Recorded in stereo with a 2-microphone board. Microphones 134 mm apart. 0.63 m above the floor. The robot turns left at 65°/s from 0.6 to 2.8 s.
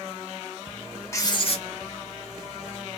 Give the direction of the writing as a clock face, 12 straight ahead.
7 o'clock.